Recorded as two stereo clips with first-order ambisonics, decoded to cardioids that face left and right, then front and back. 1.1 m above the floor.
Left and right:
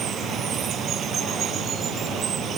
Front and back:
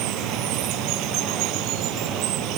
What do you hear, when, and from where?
0.0 s running water: 150° right